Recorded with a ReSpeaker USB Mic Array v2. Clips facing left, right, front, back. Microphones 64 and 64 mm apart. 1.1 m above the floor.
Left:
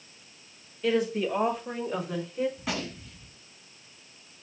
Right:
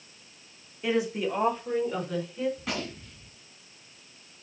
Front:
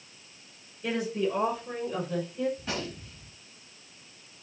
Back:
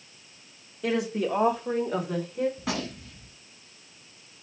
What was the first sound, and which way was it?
A woman speaking, 165° right.